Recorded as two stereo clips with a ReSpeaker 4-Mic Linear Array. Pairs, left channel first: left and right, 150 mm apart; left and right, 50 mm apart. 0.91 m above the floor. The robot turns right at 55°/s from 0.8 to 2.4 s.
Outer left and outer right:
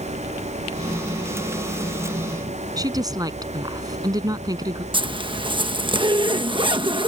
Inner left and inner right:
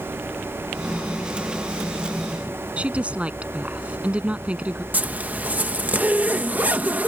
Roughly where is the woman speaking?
Right.